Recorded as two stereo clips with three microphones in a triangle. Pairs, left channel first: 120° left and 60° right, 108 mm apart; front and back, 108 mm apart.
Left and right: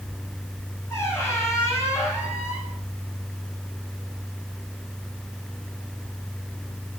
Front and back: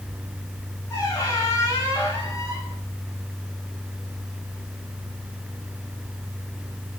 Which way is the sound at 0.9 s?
55° left.